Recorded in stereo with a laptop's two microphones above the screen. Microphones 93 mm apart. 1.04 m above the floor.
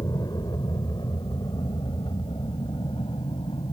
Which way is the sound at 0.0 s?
45° left (ahead or behind).